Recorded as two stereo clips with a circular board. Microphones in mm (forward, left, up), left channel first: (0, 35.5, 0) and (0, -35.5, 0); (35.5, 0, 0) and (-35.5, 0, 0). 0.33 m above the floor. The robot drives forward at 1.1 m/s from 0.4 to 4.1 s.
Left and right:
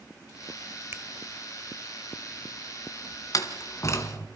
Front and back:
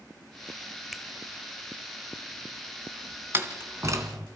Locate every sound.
0.9 s a finger snap: 90° right, 1.4 m; by 1.0 s 100° right, 1.4 m
3.3 s a door slam: 120° left, 2 m; by 4.3 s 140° left, 2.5 m